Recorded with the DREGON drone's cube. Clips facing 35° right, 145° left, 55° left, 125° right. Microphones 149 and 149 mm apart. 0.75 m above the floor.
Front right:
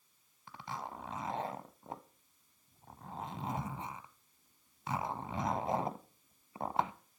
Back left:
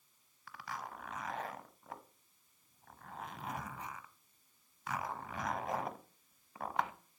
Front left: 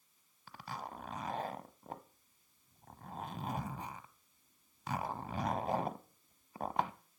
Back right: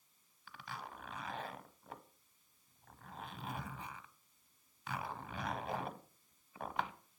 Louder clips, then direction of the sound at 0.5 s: Front right 2 dB, front left 4 dB; 20° left.